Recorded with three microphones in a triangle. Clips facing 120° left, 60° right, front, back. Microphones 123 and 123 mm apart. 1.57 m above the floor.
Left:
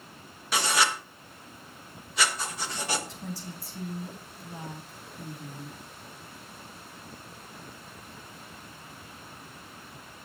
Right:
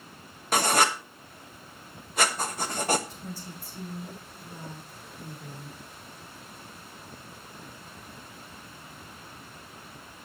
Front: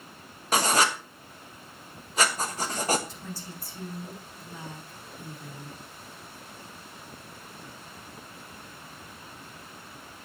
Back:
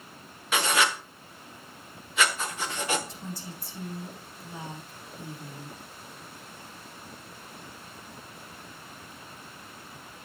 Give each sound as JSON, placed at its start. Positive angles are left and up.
{"t": 0.5, "sound": "writing", "azimuth_deg": -40, "distance_m": 1.1}
{"t": 3.1, "sound": "a woman speaking", "azimuth_deg": 105, "distance_m": 3.0}